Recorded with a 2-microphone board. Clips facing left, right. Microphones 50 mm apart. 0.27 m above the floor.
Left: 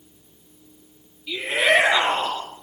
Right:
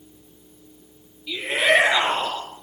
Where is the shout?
5° left (ahead or behind), 8 m.